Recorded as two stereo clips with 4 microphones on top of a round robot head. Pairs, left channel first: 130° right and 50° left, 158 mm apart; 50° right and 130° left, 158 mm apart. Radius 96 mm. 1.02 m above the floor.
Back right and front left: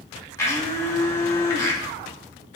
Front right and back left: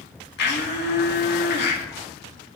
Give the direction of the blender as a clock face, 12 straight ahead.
2 o'clock.